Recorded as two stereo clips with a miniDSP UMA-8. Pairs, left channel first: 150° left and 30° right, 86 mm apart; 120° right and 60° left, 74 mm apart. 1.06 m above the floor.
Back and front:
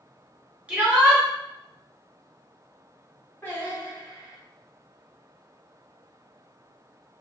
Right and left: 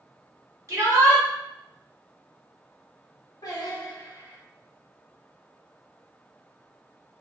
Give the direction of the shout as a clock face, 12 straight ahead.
11 o'clock.